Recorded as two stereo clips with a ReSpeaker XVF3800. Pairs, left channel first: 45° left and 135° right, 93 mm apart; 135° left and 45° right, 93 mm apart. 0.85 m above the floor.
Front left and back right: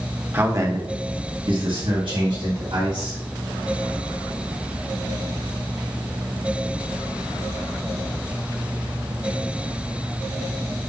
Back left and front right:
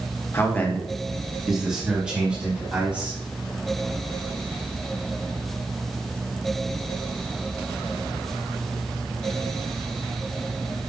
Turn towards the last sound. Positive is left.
turn(degrees=-115)